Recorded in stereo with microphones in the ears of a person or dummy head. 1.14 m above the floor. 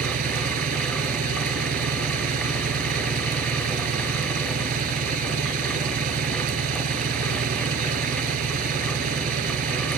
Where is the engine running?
45° right (ahead or behind).